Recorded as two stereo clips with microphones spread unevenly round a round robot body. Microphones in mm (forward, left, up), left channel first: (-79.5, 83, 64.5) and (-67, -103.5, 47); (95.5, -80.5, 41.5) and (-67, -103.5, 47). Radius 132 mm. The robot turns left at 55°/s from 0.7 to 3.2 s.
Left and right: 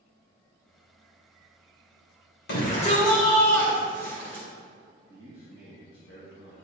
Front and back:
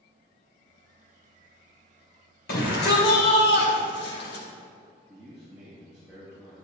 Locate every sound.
2.5 s a shout: 50° left, 2.5 m; by 4.5 s 10° left, 2.5 m
5.1 s a man speaking: 110° left, 3 m